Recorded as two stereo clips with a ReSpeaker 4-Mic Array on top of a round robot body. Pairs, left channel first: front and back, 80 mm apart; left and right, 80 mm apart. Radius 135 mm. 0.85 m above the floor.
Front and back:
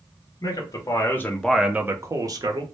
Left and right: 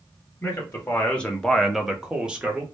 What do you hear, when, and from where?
0.4 s a man speaking: 25° left, 1.0 m; by 2.6 s 165° right, 1.0 m